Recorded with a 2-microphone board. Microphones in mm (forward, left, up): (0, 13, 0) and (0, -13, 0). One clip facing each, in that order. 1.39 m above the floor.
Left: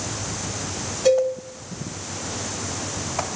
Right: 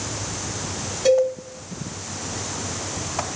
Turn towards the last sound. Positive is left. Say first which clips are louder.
# right 1 dB
turn(degrees=-10)  # may be behind; listen again after turning